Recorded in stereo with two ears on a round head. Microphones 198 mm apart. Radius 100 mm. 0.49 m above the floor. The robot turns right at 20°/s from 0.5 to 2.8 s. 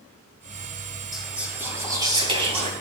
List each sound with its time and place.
1.1 s whispering: straight behind, 3.5 m; by 2.7 s 150° right, 3.5 m